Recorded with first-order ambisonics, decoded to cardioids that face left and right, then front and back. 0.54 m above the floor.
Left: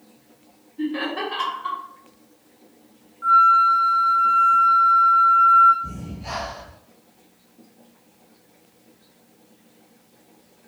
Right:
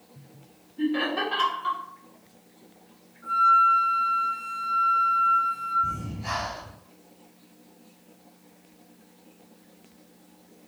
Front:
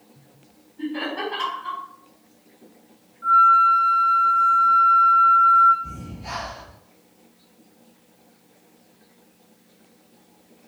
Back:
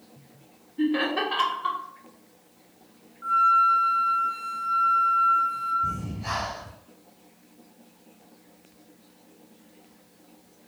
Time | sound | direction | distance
0.8 | laughter | 175° right | 0.8 m
3.2 | a flute | 100° left | 0.8 m
5.8 | breathing | 150° right | 1.1 m